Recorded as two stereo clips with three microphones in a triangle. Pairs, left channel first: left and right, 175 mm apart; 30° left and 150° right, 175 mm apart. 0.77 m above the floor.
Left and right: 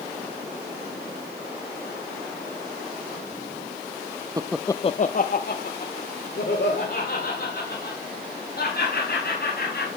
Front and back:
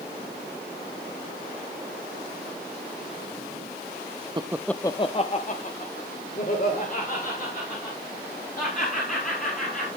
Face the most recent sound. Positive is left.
turn(degrees=70)